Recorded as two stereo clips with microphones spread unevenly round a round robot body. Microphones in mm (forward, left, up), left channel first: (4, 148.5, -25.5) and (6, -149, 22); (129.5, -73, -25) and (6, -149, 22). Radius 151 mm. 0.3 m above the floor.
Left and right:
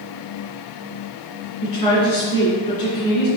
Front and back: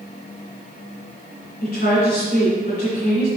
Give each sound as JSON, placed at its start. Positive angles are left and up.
{"t": 1.6, "sound": "a woman speaking", "azimuth_deg": 20, "distance_m": 2.5}